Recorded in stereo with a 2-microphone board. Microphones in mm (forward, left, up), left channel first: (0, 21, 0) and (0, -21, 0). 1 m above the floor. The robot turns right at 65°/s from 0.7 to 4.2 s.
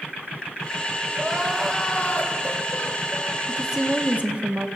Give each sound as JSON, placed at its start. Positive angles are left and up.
{"t": 1.1, "sound": "crying", "azimuth_deg": -20, "distance_m": 2.5}
{"t": 3.5, "sound": "a woman speaking", "azimuth_deg": -170, "distance_m": 0.9}